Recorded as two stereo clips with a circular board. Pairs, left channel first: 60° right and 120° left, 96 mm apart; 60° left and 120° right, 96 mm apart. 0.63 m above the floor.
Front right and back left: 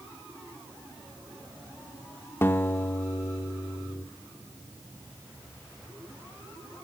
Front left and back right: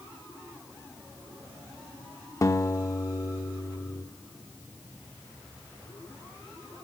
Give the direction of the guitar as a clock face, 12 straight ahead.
12 o'clock.